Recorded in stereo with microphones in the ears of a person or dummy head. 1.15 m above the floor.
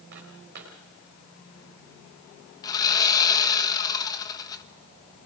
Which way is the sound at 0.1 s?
55° right (ahead or behind).